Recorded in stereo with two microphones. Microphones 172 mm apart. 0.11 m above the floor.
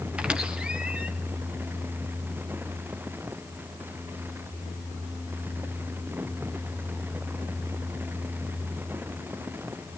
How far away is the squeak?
About 1.5 m.